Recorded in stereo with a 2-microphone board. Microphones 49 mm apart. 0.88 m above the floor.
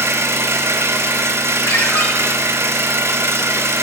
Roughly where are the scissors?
I don't hear scissors.